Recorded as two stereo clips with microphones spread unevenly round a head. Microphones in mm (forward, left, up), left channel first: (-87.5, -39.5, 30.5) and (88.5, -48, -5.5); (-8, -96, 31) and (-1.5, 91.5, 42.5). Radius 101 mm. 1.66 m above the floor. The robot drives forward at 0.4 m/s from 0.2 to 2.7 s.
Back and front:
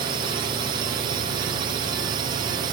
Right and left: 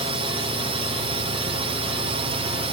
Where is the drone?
35° left; by 2.7 s 40° left.